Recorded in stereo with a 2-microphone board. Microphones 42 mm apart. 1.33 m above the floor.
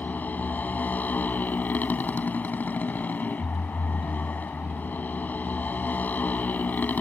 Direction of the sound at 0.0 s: 45° left (ahead or behind).